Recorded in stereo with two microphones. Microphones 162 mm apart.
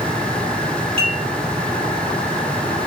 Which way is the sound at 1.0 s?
35° right (ahead or behind).